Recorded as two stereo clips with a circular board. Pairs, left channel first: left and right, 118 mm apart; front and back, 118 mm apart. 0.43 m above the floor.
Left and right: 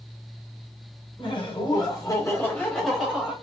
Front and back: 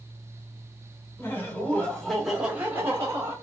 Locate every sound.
1.2 s laughter: 65° left, 1.9 m; by 3.3 s 160° right, 1.5 m